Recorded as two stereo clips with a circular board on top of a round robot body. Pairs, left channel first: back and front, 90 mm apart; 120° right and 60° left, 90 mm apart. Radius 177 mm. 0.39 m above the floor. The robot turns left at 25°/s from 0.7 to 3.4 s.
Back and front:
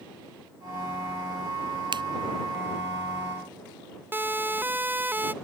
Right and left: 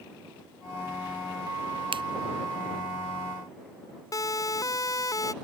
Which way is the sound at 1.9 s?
35° left.